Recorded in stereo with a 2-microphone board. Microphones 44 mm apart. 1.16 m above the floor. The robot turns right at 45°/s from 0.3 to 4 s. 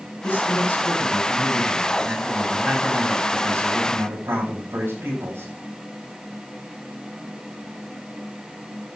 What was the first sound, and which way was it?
A man speaking, 110° left.